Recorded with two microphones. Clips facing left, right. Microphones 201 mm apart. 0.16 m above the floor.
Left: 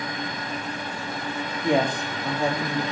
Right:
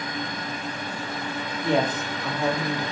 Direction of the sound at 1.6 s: 15° left (ahead or behind).